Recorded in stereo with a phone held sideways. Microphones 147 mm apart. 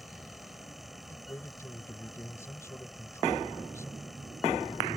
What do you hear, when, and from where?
0.0 s a fan: centre (ahead or behind)
1.1 s a man speaking: 20° left (ahead or behind)